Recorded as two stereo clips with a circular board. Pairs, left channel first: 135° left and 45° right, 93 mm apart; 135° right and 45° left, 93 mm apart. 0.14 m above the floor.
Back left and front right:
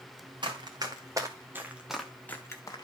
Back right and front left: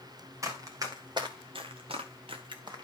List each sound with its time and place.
0.4 s running footsteps: 10° right, 3 m; by 2.8 s 90° left, 1.9 m